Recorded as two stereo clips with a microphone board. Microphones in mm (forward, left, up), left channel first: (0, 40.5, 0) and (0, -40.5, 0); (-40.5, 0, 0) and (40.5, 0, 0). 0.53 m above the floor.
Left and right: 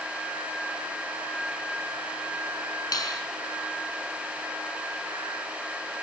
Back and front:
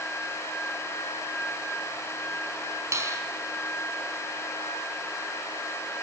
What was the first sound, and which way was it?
A finger snap, 50° left.